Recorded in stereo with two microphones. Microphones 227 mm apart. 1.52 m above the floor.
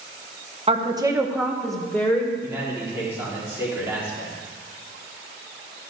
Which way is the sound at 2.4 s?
10° right (ahead or behind).